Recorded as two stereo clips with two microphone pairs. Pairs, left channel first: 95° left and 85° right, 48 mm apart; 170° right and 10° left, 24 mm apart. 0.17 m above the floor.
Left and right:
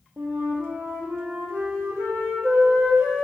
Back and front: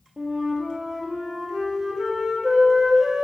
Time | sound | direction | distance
0.2 | a flute | 60° right | 0.9 m